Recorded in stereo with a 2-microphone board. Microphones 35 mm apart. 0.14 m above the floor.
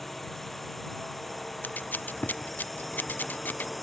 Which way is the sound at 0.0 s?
5° left (ahead or behind).